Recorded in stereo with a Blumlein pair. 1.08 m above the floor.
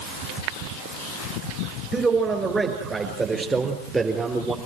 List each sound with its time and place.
1.9 s a man speaking: 15° right, 6.5 m; by 4.6 s 10° right, 3.5 m